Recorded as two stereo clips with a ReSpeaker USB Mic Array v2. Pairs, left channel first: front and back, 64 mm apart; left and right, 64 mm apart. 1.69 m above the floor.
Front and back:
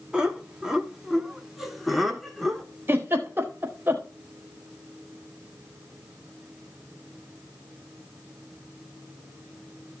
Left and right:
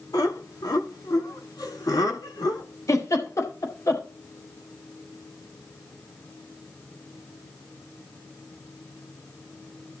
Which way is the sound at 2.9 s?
125° left.